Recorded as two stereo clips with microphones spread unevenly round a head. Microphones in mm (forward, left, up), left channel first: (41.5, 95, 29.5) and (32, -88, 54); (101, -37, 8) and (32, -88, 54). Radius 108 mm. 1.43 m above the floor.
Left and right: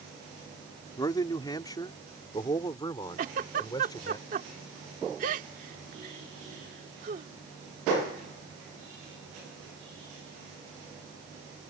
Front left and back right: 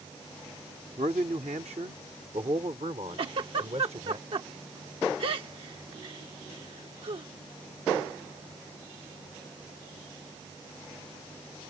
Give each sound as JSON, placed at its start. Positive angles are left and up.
{"t": 1.0, "sound": "a man speaking", "azimuth_deg": 160}
{"t": 3.2, "sound": "a giggle", "azimuth_deg": -145}